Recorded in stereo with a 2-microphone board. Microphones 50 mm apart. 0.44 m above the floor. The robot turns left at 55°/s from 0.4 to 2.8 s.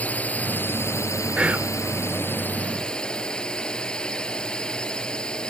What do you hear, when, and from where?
0.0 s a drone: 150° left; by 5.5 s 15° left
1.4 s whispering: 20° right (ahead or behind); by 1.8 s 35° right (ahead or behind)